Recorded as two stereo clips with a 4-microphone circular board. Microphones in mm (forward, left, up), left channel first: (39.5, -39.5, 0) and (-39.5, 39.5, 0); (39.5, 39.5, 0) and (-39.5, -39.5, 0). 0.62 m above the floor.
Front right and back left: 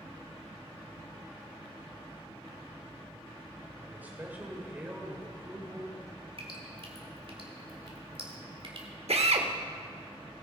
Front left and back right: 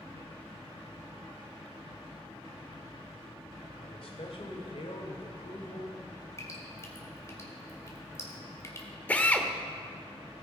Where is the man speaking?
65° left, 2.5 m.